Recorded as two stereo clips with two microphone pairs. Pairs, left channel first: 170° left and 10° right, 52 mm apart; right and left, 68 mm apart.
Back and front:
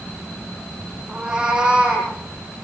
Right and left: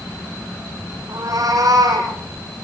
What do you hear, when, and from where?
1.1 s a cat meowing: 65° left, 7.5 m